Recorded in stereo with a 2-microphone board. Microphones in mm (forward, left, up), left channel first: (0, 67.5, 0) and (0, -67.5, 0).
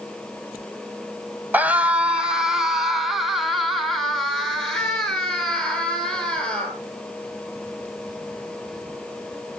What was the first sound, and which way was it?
A scream, 10° right (ahead or behind).